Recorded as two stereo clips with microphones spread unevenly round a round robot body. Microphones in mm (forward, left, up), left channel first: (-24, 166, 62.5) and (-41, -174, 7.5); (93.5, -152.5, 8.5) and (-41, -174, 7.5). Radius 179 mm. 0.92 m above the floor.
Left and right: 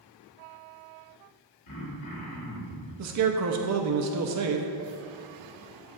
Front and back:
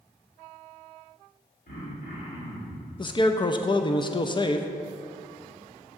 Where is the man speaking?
55° right, 0.6 m.